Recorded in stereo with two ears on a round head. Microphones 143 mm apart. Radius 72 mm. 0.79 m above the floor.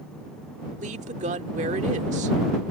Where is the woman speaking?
45° right (ahead or behind).